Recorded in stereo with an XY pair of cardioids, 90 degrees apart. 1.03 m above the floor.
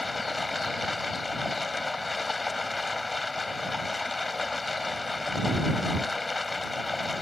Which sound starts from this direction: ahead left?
Running water, at 0.0 s.